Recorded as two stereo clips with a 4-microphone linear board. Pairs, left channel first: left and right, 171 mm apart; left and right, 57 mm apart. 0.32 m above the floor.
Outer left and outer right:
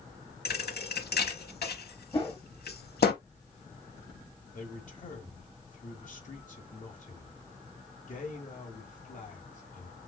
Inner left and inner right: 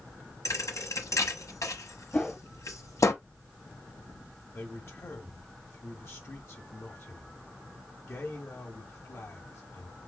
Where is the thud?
70° left (ahead or behind), 0.9 m.